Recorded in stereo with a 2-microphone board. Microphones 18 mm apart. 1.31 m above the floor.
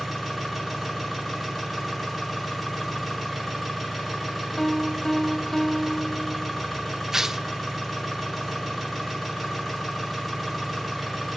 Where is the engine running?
10° left (ahead or behind), 7.5 m.